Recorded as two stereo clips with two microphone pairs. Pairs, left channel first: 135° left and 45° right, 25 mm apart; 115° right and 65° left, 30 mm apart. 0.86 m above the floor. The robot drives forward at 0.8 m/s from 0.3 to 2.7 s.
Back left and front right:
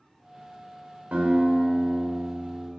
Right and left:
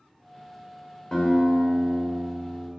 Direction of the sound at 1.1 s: 45° right.